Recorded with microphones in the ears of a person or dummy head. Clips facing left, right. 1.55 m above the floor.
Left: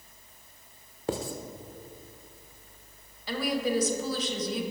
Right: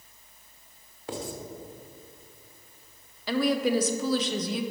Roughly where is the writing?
Left.